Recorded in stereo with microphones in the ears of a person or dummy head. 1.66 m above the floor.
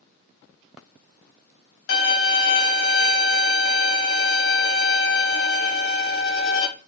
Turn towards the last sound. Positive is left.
turn(degrees=80)